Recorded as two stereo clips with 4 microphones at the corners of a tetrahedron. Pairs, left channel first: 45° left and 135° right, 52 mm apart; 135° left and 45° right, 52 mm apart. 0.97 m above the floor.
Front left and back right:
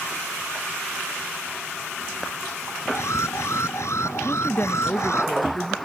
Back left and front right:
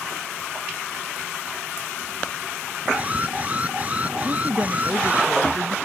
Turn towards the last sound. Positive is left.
turn(degrees=-10)